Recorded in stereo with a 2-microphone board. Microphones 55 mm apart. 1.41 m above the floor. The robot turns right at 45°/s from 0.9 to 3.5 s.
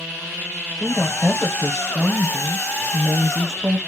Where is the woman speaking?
160° left, 0.9 m; by 3.8 s 85° right, 0.9 m.